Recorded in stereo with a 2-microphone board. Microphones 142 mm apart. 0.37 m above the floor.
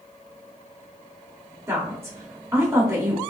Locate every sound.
1.7 s a woman speaking: 20° right (ahead or behind), 0.8 m